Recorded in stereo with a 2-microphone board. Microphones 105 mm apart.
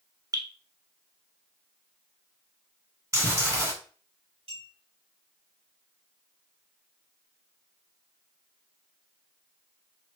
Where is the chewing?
30° right (ahead or behind), 1.8 m.